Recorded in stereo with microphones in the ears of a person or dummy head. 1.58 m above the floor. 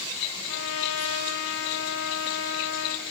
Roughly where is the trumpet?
Left.